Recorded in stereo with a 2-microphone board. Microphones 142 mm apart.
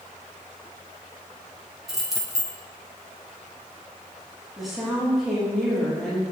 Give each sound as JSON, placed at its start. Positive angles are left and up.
{"t": 1.9, "sound": "keys jangling", "side_deg": 0, "distance_m": 1.0}
{"t": 4.6, "sound": "a woman speaking", "side_deg": 0, "distance_m": 1.0}